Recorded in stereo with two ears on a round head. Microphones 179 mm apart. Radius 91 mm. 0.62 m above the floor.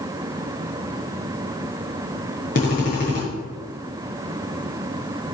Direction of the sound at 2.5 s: 40° left (ahead or behind).